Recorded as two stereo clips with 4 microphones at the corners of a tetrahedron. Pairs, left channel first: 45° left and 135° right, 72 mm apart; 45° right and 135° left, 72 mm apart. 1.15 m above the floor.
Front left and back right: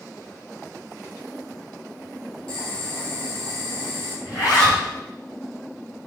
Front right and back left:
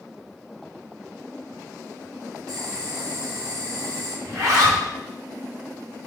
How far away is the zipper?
About 3 m.